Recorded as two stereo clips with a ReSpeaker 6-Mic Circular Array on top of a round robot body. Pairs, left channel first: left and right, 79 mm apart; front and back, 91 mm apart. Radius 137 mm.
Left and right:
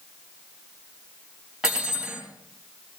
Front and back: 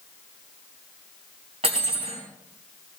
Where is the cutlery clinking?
170° right, 4 m.